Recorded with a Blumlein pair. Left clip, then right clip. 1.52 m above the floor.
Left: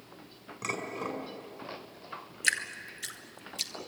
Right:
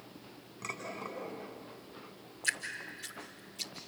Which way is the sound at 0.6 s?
20° left.